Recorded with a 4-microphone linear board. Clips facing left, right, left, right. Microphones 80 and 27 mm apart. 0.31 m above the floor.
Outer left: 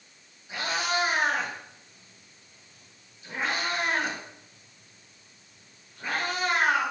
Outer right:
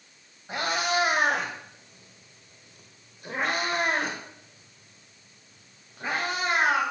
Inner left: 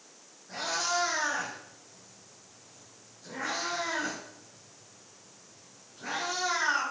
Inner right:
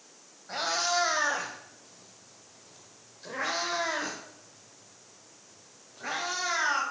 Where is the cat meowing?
60° right (ahead or behind), 2 m; by 6.8 s 25° right (ahead or behind), 4 m.